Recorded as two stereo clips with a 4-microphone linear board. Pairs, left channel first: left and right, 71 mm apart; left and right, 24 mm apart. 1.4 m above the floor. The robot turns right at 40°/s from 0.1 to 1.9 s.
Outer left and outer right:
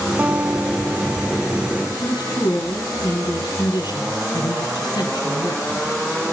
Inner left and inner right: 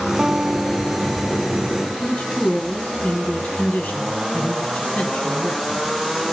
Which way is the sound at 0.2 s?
40° right.